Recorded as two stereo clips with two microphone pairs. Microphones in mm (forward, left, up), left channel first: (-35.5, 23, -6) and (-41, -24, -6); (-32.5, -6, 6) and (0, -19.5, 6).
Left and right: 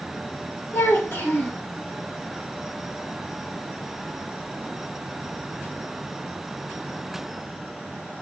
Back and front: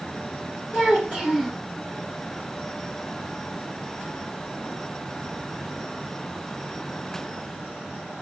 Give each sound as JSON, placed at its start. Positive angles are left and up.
{"t": 0.7, "sound": "a child speaking", "azimuth_deg": 95, "distance_m": 2.0}